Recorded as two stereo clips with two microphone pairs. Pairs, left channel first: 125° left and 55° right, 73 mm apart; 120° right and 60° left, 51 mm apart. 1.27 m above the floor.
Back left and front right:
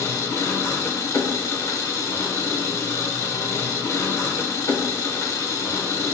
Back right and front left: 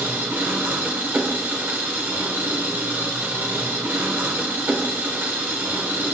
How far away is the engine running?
About 1.2 m.